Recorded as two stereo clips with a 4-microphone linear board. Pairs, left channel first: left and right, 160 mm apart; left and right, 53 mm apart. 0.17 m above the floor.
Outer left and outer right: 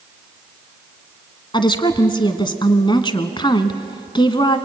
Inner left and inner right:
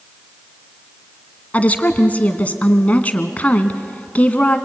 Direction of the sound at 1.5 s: 25° left (ahead or behind).